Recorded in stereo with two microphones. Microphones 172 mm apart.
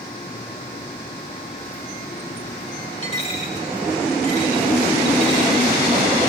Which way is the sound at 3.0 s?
40° left (ahead or behind).